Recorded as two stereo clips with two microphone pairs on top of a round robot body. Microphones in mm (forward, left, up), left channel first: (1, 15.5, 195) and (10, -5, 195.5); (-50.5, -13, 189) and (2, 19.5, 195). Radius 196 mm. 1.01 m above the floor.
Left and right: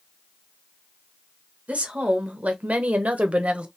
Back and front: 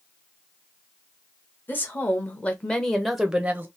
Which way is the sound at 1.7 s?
90° right.